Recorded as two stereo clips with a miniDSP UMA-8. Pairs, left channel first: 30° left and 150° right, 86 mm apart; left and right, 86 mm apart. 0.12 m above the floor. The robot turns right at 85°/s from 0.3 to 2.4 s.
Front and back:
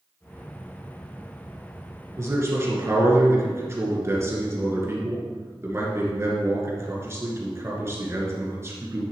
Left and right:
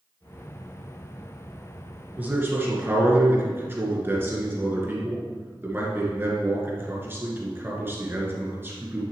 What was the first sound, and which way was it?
A man speaking, 145° right.